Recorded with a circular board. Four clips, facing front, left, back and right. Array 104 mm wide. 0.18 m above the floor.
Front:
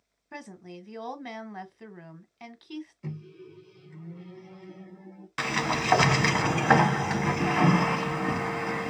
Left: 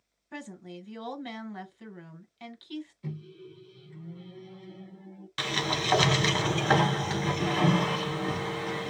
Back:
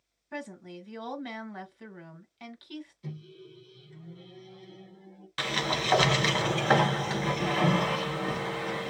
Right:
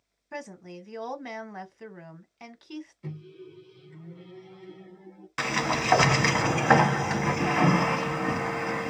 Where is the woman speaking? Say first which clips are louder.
Right 2 dB, back 2 dB; 70° right, 1.4 m.